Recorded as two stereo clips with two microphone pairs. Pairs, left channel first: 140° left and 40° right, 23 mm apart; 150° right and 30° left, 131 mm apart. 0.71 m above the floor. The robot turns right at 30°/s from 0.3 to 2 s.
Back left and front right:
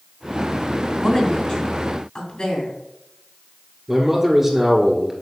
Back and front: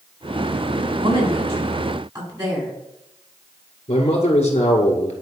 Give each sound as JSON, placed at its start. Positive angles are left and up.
{"t": 1.0, "sound": "a woman speaking", "azimuth_deg": 55, "distance_m": 3.0}
{"t": 3.9, "sound": "a man speaking", "azimuth_deg": -115, "distance_m": 1.8}